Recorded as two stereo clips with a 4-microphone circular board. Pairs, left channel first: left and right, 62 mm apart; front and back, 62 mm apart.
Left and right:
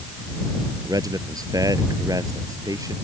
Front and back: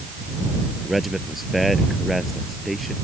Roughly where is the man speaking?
Right.